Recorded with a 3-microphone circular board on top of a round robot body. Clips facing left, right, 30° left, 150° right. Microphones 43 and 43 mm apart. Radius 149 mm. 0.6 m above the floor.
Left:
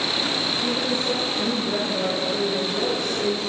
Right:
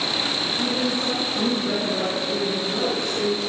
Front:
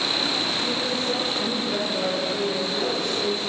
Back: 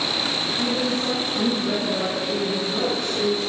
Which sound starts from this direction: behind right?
A woman speaking, at 0.6 s.